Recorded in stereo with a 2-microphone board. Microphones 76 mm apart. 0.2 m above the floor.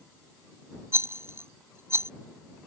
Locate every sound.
0.9 s a rattle: 35° right (ahead or behind)